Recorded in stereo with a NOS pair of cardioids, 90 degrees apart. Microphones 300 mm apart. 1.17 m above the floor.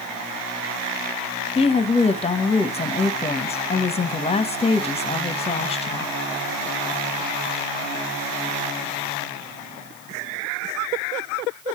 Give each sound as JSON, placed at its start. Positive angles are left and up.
{"t": 1.6, "sound": "a woman speaking", "azimuth_deg": 20, "distance_m": 1.2}